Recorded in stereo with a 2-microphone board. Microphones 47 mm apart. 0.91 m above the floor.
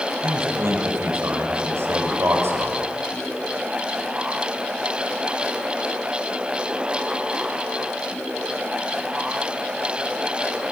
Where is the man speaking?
65° right (ahead or behind), 4.5 m.